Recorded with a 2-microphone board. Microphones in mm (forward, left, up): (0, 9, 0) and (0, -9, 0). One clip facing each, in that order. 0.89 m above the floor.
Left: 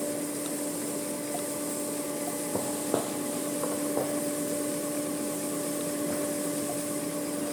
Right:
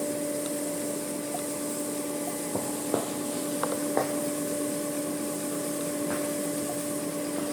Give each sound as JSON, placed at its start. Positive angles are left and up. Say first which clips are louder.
{"t": 2.5, "sound": "footsteps", "louder": "even", "side_deg": 30, "distance_m": 1.1}